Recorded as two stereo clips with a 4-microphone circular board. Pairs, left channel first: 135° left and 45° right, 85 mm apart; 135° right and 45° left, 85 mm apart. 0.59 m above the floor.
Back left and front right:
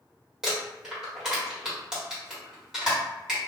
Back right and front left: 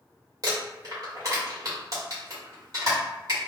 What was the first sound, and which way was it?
Crumpling, 35° left.